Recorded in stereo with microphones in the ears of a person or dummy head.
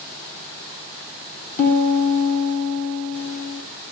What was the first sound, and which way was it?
A piano, 50° left (ahead or behind).